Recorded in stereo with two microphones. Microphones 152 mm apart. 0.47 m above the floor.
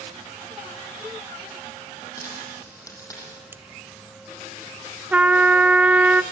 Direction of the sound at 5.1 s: 10° right (ahead or behind).